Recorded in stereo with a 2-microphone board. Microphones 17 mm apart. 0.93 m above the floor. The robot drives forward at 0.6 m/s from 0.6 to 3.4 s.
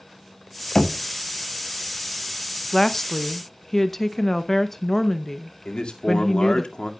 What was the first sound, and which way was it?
Knocking, 45° left (ahead or behind).